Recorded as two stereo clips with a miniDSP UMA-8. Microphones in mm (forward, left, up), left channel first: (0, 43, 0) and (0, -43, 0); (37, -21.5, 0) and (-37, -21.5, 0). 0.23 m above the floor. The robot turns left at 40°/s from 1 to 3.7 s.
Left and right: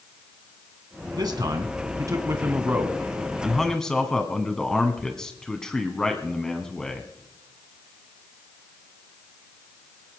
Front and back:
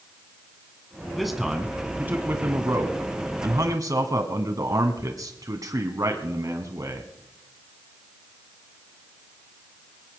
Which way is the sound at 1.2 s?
85° right.